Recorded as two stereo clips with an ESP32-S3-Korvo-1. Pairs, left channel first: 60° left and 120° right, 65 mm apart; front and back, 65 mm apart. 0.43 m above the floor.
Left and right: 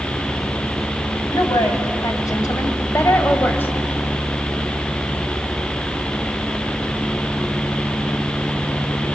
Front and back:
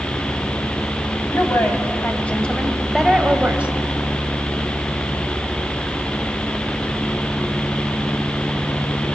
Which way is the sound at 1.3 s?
45° left.